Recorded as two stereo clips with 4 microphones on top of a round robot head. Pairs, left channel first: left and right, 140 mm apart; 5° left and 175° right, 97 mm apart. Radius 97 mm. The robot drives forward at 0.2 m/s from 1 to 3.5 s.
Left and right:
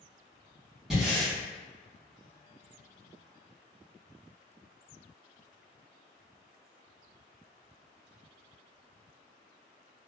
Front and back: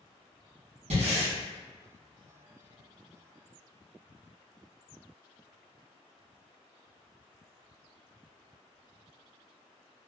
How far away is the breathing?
About 0.9 m.